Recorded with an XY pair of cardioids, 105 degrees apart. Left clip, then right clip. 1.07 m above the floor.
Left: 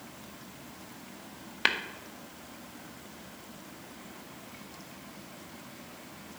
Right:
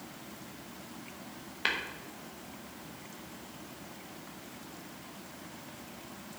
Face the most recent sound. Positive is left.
turn(degrees=40)